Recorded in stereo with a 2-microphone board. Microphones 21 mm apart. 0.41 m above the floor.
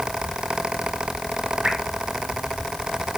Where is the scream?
I don't hear a scream.